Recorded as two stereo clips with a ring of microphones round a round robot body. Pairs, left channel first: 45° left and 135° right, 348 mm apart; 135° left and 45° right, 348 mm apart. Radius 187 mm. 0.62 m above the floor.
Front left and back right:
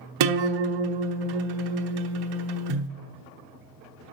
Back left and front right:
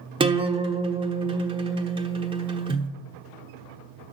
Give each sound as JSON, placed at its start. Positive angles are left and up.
{"t": 0.2, "sound": "a guitar", "azimuth_deg": -120, "distance_m": 1.1}